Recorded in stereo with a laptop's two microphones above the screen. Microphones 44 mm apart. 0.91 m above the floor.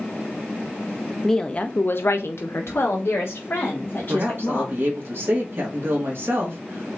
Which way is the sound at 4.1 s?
55° right (ahead or behind).